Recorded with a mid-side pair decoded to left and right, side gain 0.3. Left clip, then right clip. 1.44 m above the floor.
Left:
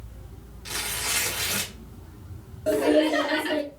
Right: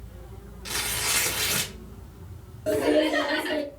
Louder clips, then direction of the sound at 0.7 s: Right 1 dB; 25° right.